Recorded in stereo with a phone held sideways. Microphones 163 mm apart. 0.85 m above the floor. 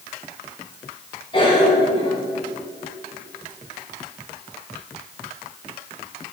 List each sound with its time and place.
1.3 s a cough: 30° left (ahead or behind), 4.5 m